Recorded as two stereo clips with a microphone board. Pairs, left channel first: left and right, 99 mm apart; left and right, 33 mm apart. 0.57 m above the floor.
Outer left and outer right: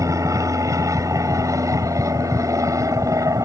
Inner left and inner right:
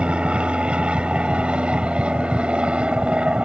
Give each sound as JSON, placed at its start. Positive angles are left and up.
{"t": 0.0, "sound": "an aircraft", "side_deg": -35}